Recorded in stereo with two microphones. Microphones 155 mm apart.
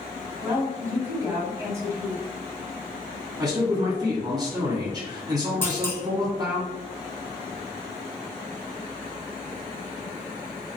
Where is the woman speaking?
20° right (ahead or behind), 1.1 m.